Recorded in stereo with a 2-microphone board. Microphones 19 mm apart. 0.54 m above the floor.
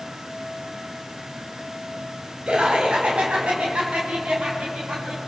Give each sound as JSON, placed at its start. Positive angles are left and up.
{"t": 2.5, "sound": "laughter", "side_deg": -65, "distance_m": 3.0}